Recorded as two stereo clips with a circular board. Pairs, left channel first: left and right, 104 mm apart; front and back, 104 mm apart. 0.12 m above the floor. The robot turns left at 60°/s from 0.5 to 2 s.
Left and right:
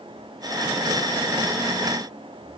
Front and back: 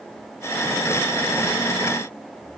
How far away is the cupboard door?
No cupboard door in this recording.